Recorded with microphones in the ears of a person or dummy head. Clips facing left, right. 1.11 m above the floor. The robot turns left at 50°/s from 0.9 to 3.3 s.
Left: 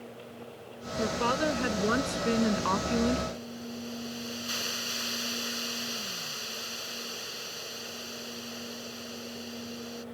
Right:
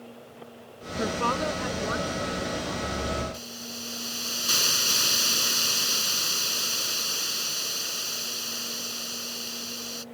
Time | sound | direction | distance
1.0 | a woman speaking | 175° right | ?
3.3 | a hiss | 65° right (ahead or behind) | ?